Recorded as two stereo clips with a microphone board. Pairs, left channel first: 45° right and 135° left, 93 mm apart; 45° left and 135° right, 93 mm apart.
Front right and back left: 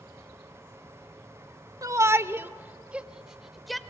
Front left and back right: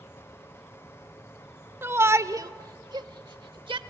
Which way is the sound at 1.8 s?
170° left.